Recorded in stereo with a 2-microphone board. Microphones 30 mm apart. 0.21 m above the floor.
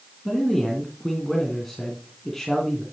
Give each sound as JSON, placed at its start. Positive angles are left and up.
{"t": 0.2, "sound": "a man speaking", "side_deg": 5, "distance_m": 2.0}